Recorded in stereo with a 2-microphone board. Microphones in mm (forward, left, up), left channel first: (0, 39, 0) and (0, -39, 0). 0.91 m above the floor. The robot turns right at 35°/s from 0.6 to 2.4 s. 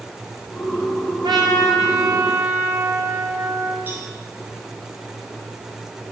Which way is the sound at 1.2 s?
70° right.